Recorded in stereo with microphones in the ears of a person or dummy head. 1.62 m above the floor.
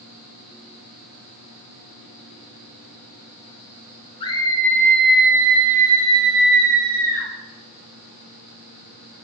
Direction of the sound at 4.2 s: 30° left (ahead or behind).